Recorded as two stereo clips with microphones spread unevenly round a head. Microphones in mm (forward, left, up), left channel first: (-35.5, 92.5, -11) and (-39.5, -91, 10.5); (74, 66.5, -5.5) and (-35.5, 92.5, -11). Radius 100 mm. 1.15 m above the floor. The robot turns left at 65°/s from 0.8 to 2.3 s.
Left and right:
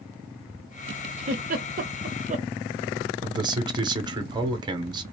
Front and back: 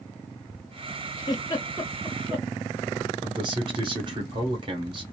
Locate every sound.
1.2 s a giggle: 50° right, 0.6 m; by 2.5 s 120° right, 0.6 m
3.2 s a man speaking: 160° right, 0.9 m